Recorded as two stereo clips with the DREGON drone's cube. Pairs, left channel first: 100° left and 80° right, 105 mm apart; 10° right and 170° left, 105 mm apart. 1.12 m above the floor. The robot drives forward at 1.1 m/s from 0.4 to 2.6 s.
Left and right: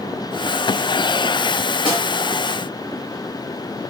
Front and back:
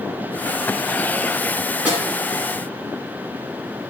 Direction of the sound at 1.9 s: 115° right.